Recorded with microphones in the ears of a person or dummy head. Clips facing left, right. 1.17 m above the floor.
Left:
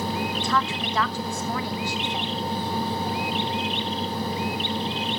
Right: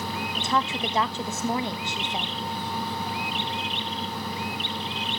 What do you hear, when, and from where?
0.3 s a woman speaking: 20° right (ahead or behind), 0.9 m